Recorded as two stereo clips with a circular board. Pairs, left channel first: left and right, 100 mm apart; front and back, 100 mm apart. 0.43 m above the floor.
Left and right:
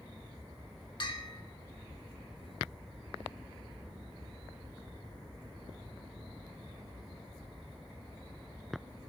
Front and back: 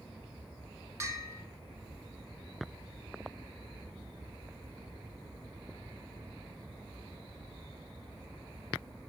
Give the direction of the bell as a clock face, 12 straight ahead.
8 o'clock.